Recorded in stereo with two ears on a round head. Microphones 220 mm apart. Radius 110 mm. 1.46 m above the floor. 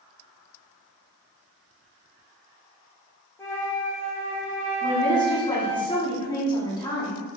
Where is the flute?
10° left (ahead or behind), 0.8 m.